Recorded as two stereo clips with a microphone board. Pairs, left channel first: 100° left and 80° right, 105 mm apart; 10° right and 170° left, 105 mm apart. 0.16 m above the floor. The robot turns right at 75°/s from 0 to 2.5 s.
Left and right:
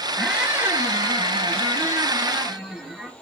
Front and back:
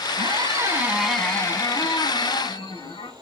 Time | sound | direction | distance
0.2 | a squeak | 170° right | 0.8 m